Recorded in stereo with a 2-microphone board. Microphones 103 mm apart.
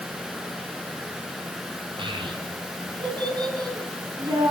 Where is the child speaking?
55° right (ahead or behind), 6.5 m; by 4.5 s 35° right (ahead or behind), 6.5 m.